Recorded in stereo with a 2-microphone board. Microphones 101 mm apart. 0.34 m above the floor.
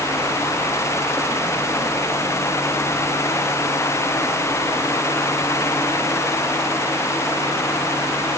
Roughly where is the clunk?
No clunk in this recording.